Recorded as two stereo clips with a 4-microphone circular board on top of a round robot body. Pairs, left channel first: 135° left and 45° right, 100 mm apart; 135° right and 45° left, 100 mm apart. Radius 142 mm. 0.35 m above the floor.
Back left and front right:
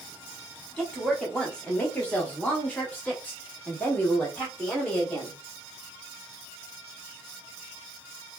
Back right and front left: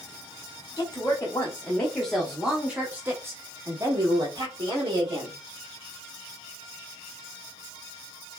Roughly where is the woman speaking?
Behind right.